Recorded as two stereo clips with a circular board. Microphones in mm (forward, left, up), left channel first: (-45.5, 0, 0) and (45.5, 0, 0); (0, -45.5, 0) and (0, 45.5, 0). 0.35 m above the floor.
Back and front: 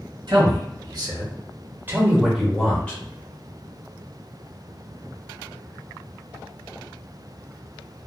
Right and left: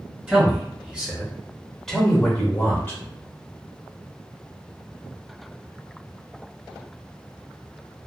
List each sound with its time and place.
0.3 s a man speaking: 20° left, 1.8 m; by 3.0 s 130° right, 1.1 m